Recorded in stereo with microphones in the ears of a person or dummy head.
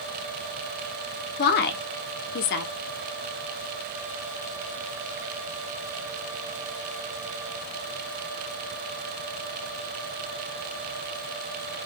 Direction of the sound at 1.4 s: 60° left (ahead or behind).